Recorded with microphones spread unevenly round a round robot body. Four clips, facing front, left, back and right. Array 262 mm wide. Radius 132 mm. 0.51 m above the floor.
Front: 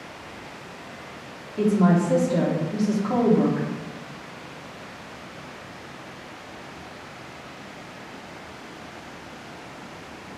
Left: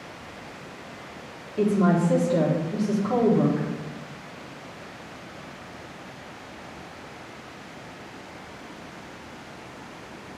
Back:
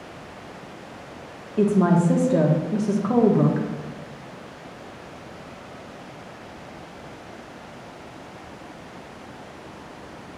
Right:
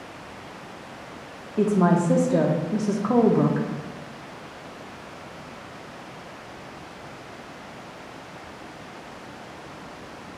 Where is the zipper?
I don't hear a zipper.